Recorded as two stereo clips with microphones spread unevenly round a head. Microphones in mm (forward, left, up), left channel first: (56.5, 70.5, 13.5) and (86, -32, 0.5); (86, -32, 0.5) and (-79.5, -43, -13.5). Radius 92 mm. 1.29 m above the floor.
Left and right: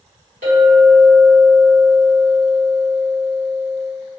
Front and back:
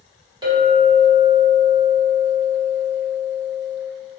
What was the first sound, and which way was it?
A clink, 110° right.